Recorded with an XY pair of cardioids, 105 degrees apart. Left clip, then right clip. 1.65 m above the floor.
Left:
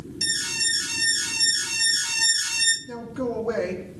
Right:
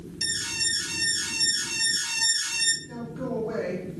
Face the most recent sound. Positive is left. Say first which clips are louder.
# left 4 dB
turn(degrees=50)